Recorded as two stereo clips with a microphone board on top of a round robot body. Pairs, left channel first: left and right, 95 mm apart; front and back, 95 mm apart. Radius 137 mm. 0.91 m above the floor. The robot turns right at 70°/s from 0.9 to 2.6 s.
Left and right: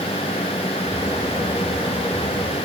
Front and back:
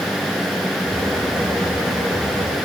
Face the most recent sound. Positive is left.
No sound to turn to.